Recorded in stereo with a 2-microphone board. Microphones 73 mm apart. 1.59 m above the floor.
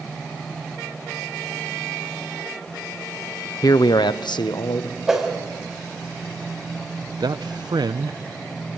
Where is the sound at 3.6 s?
55° left (ahead or behind), 0.6 m; by 5.0 s 75° left (ahead or behind), 1.9 m.